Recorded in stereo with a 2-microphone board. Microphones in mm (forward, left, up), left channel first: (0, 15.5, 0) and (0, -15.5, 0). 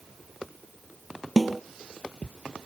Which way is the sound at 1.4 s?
Centre (ahead or behind).